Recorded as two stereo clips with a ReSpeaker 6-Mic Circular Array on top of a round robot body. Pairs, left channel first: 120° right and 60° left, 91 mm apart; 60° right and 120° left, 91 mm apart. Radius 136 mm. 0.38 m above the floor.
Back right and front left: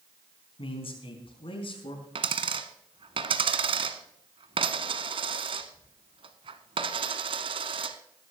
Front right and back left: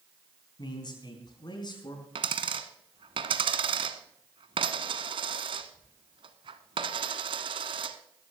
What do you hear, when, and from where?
0.6 s a man speaking: 100° right, 3.5 m
2.1 s a dropped coin: 90° left, 1.1 m